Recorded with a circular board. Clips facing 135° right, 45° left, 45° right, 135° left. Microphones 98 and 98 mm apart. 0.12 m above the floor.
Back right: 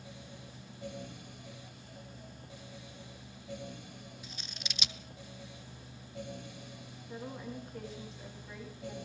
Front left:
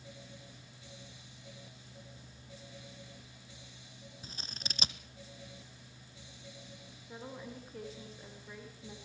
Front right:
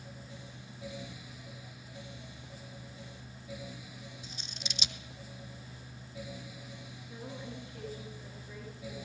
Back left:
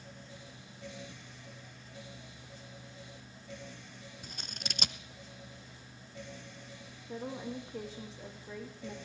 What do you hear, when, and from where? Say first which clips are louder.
4.2 s scissors: even, back left 1 dB; 100° left, 0.9 m
7.1 s a woman speaking: back right 3 dB, back left 5 dB; 135° left, 6.5 m